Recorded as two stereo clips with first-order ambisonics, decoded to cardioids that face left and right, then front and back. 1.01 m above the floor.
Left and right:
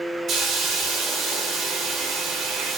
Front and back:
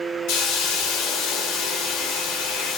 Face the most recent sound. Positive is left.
turn(degrees=-25)